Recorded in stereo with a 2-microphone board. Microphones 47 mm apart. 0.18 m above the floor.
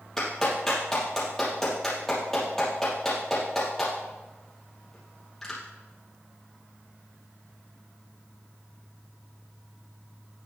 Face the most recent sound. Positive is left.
turn(degrees=10)  # may be behind; listen again after turning